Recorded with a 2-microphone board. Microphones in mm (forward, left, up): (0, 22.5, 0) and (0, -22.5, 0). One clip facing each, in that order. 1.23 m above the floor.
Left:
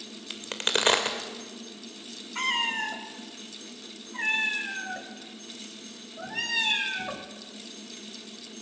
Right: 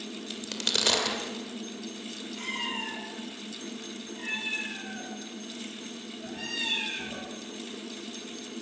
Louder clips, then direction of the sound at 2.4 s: Left 7 dB; 70° left (ahead or behind).